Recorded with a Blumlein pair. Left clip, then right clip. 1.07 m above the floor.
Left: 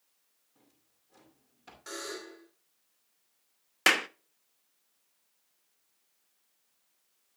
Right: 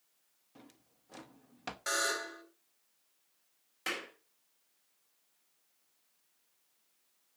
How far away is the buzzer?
About 3 m.